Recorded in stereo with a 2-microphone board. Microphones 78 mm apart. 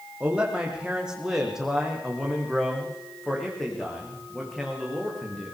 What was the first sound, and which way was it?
A man speaking, 15° right (ahead or behind).